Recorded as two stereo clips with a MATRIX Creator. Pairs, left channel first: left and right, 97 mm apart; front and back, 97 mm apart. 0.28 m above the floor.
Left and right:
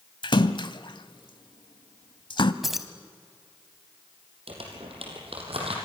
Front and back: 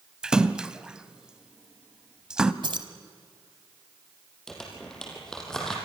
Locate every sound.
0.2 s a splash: 100° left, 0.8 m
2.6 s keys jangling: 175° right, 1.3 m
4.5 s crumpling: 85° right, 4.5 m